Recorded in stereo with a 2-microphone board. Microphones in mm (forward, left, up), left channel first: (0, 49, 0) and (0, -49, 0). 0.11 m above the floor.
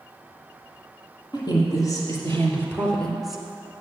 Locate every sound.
1.3 s a woman speaking: 45° left (ahead or behind), 3.5 m; by 3.4 s 10° right (ahead or behind), 2.5 m